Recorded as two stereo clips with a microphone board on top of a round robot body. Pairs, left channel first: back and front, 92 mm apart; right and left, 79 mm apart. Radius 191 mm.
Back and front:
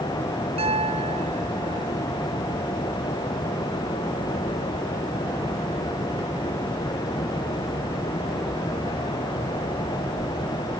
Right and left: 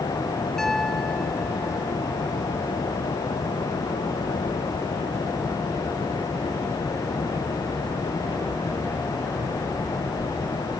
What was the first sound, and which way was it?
A piano, 5° right.